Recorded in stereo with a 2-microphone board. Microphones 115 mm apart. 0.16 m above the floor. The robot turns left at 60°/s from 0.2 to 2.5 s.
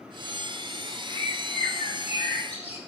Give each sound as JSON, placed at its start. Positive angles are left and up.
{"t": 1.1, "sound": "a bird", "azimuth_deg": 160, "distance_m": 5.5}